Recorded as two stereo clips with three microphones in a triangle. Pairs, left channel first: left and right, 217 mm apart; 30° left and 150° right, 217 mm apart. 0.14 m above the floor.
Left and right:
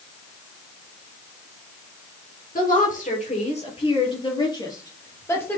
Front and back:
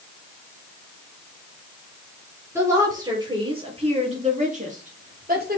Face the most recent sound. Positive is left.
turn(degrees=170)